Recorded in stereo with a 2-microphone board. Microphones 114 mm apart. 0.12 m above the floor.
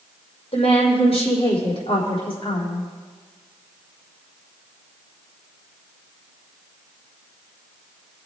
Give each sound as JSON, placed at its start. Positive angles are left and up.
{"t": 0.5, "sound": "a woman speaking", "side_deg": 65, "distance_m": 3.5}